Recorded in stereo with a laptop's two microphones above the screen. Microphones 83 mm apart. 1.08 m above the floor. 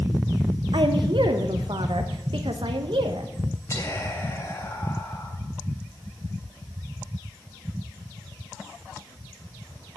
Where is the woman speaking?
70° right (ahead or behind), 0.9 m.